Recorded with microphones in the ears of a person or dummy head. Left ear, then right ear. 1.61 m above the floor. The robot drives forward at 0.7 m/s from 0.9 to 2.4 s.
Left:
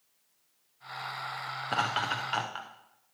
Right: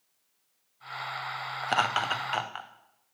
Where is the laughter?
30° right (ahead or behind), 0.6 m; by 2.7 s 20° right (ahead or behind), 1.1 m.